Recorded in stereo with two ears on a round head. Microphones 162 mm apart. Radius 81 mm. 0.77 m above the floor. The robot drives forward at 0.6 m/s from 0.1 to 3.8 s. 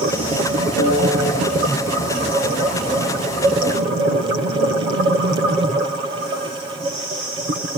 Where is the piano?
75° right (ahead or behind), 3.5 m; by 1.2 s 80° right, 3 m.